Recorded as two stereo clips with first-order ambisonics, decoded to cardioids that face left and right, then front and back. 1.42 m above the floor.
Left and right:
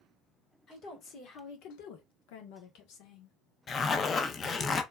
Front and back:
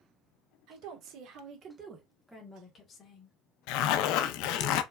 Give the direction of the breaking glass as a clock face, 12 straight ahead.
I don't hear breaking glass.